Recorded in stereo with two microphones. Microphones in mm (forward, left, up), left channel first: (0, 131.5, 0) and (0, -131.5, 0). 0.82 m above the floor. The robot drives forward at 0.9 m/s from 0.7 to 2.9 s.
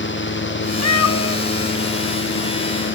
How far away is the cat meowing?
About 0.6 m.